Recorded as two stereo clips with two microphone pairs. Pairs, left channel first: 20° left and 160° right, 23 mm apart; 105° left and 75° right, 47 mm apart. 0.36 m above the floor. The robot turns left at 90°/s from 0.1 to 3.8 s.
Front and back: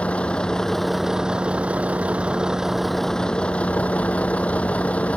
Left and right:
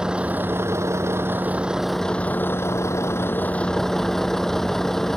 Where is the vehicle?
Straight ahead; by 5.2 s 25° left.